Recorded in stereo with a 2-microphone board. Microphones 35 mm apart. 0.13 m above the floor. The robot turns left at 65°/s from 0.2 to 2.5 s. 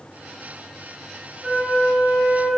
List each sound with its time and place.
1.4 s a flute: 55° right, 0.8 m; by 2.5 s 125° right, 0.8 m